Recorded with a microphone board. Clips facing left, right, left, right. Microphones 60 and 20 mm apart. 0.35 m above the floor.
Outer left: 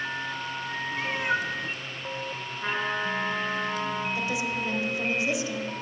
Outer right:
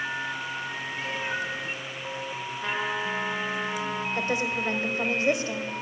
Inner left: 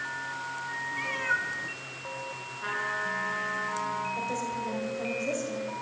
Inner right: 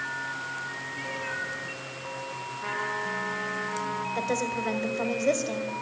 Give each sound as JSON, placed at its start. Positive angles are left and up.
{"t": 0.9, "sound": "a cat meowing", "side_deg": 65, "distance_m": 1.9}
{"t": 2.6, "sound": "a trumpet", "side_deg": 15, "distance_m": 2.5}
{"t": 4.2, "sound": "a woman speaking", "side_deg": -50, "distance_m": 1.4}